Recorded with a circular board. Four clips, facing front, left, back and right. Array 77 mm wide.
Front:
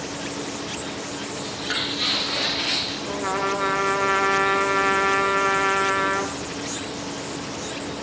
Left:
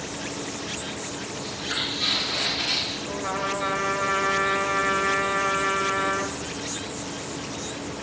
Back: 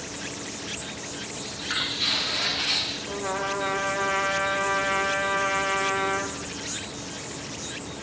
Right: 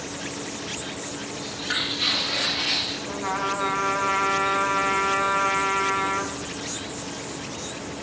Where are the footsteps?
20° right, 7.5 m.